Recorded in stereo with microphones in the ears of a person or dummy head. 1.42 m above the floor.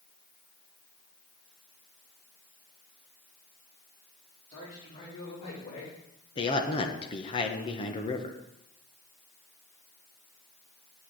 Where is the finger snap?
No finger snap in this recording.